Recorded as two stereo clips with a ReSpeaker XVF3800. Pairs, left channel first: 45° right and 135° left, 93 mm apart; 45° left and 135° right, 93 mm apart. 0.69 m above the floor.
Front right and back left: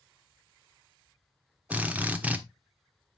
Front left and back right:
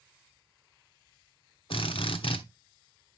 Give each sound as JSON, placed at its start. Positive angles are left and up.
{"t": 1.7, "sound": "a drill", "azimuth_deg": 60, "distance_m": 1.1}